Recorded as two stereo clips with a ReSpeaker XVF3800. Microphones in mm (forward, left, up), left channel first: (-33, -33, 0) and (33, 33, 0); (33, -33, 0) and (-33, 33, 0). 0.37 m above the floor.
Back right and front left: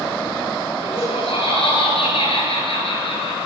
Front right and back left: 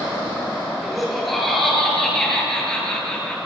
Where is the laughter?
135° right, 8 m; by 3.4 s 125° right, 8 m.